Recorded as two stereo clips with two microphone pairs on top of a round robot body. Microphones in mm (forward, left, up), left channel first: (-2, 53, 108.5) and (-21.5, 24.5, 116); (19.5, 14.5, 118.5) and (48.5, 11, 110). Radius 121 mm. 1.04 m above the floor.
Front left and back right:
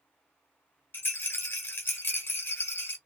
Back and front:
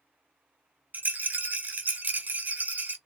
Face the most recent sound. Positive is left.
turn(degrees=25)